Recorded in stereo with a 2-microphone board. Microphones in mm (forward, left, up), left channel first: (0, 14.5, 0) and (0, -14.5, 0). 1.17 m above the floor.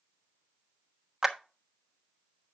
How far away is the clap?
About 1.1 m.